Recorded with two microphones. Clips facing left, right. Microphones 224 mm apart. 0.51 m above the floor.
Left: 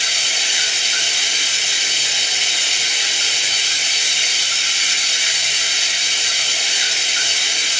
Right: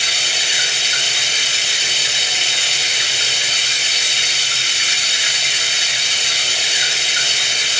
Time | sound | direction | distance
0.0 | running water | 65° right (ahead or behind) | 0.9 m